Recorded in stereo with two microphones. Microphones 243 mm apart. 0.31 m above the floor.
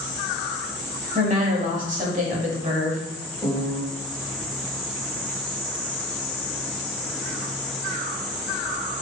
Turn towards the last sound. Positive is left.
turn(degrees=5)  # may be behind; listen again after turning